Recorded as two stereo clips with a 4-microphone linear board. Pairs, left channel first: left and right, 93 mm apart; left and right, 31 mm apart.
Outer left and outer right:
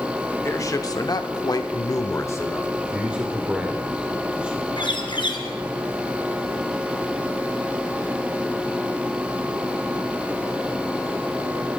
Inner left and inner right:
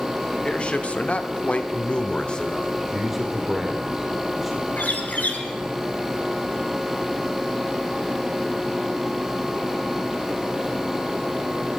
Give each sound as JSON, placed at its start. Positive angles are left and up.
{"t": 0.4, "sound": "a man speaking", "side_deg": 30, "distance_m": 1.3}
{"t": 2.8, "sound": "a man speaking", "side_deg": -10, "distance_m": 1.9}
{"t": 4.8, "sound": "a bird", "side_deg": 55, "distance_m": 1.9}